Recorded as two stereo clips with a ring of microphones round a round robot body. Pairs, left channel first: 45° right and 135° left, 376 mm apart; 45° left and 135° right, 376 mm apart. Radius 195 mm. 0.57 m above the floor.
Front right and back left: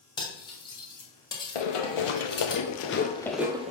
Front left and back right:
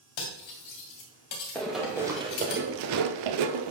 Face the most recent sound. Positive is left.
turn(degrees=-155)